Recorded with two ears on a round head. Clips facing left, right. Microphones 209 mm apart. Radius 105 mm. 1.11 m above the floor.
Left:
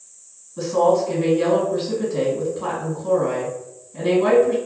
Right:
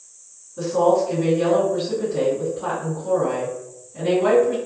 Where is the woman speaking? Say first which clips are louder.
Even; 60° left (ahead or behind), 1.6 m.